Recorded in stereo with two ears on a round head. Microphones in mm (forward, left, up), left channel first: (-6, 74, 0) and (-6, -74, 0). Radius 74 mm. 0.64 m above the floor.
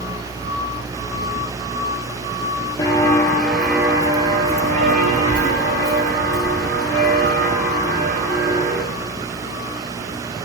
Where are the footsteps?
20° left (ahead or behind), 1.0 m; by 8.8 s 75° right (ahead or behind), 3 m.